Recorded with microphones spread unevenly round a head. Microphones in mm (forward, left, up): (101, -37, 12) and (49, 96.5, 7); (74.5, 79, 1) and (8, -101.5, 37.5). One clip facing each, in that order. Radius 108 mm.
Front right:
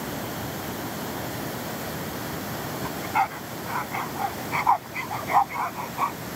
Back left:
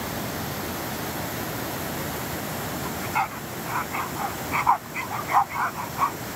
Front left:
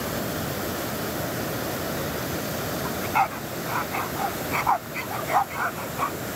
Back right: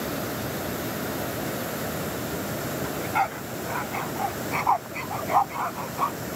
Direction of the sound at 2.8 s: 35° right.